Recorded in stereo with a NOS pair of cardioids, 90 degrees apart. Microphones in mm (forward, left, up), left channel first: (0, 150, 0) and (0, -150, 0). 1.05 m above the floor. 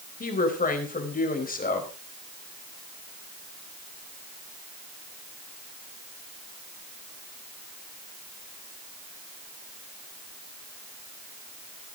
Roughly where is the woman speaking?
Ahead left.